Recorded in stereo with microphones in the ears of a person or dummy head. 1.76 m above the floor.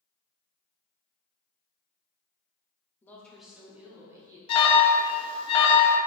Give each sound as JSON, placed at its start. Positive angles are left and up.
{"t": 3.0, "sound": "a woman speaking", "side_deg": 15, "distance_m": 0.8}
{"t": 4.5, "sound": "an alarm", "side_deg": 30, "distance_m": 0.6}